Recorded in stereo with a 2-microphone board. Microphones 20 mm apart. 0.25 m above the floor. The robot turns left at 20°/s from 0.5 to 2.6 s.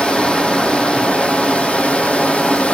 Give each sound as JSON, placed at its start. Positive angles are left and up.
{"t": 0.0, "sound": "running water", "azimuth_deg": 120, "distance_m": 2.0}